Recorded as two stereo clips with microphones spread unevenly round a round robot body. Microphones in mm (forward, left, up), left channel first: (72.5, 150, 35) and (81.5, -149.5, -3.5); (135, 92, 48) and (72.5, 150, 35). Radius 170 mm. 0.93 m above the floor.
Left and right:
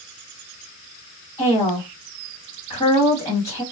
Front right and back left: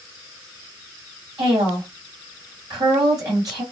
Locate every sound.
1.4 s a woman speaking: 175° left, 1.3 m